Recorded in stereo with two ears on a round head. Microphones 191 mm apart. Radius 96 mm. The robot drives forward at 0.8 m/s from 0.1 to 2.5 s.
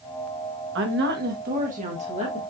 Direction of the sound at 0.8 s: 60° right (ahead or behind).